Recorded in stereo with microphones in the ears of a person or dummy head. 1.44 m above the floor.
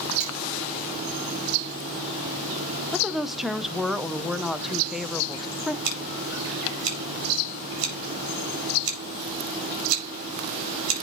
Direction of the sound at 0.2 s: 45° right (ahead or behind).